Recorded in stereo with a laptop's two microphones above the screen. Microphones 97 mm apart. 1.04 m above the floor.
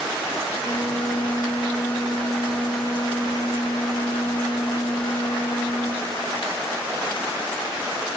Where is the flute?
60° left (ahead or behind), 8.5 m.